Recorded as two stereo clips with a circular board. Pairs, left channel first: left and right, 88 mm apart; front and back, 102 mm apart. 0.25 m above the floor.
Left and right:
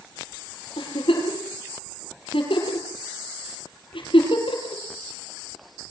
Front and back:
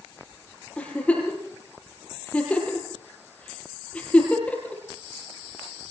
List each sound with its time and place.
0.8 s a giggle: 80° left, 8 m